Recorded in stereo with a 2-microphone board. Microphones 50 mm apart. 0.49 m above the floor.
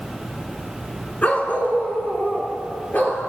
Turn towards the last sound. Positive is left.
turn(degrees=35)  # may be behind; listen again after turning